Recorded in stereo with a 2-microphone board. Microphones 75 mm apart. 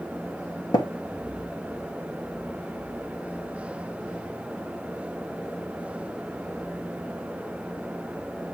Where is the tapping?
70° left (ahead or behind), 2 m.